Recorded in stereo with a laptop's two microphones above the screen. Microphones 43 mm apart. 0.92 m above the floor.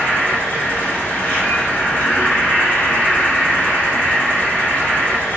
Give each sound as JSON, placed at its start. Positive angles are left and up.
{"t": 0.0, "sound": "an insect", "side_deg": 40, "distance_m": 1.9}